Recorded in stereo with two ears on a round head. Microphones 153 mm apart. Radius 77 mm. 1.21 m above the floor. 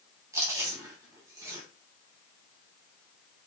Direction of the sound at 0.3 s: 20° right (ahead or behind).